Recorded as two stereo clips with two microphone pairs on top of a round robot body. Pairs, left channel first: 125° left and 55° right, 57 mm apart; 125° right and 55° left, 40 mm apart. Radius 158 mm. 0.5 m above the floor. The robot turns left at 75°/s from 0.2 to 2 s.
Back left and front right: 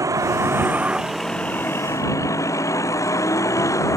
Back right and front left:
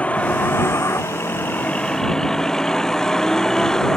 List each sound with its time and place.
0.0 s a vehicle: 70° right; by 4.0 s 155° left